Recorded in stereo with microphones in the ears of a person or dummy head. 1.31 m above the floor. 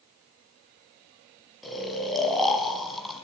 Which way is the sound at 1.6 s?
Centre (ahead or behind).